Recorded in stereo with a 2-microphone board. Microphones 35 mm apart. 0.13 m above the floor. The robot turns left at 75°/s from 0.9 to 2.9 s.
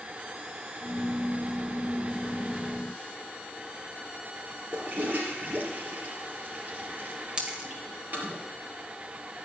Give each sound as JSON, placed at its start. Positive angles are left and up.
{"t": 4.7, "sound": "a toilet flushing", "side_deg": -45, "distance_m": 3.5}
{"t": 7.4, "sound": "a dropped coin", "side_deg": -25, "distance_m": 1.4}